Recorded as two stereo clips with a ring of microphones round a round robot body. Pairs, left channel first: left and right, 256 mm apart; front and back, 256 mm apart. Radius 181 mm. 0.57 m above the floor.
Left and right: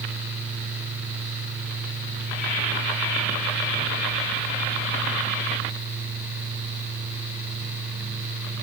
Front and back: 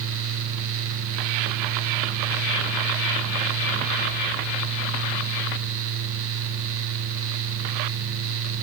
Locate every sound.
Only background noise.